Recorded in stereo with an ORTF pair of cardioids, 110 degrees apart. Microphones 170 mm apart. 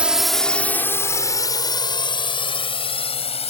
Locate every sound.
0.0 s a drone: 5° right; by 3.5 s 40° left